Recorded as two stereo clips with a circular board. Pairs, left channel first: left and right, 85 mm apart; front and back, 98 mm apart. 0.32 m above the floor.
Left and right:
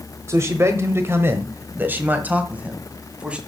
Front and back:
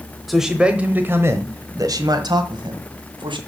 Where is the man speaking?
90° right, 1.1 m; by 3.4 s 165° right, 2.0 m.